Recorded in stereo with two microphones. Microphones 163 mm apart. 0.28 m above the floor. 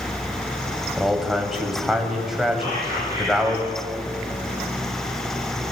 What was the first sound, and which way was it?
A man speaking, centre (ahead or behind).